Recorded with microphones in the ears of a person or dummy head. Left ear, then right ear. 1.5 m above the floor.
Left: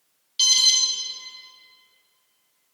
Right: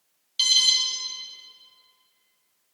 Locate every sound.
0.4 s an alarm: 20° right (ahead or behind), 0.6 m